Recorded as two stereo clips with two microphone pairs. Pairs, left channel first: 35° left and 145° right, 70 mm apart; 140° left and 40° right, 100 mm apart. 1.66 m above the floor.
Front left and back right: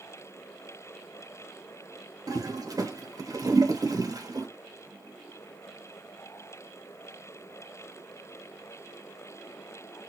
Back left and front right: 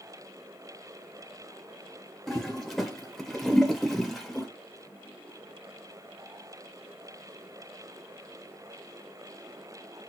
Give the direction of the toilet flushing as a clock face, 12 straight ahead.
4 o'clock.